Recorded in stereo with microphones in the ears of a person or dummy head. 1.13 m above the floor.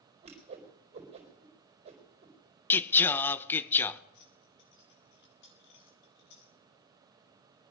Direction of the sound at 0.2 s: 30° right (ahead or behind).